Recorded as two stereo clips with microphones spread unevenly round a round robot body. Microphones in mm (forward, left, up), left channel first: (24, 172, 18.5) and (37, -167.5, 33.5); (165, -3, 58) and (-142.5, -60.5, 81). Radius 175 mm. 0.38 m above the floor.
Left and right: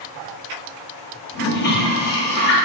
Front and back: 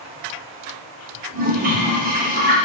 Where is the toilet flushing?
135° left, 0.7 m.